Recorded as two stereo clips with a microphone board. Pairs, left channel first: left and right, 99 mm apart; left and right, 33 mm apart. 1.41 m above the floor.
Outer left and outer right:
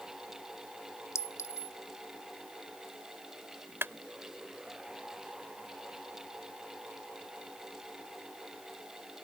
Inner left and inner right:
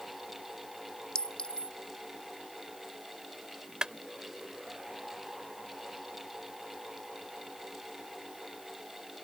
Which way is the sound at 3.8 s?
25° right (ahead or behind).